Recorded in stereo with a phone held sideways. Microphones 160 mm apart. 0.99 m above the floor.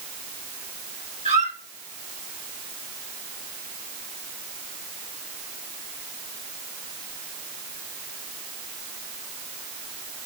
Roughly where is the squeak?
Right.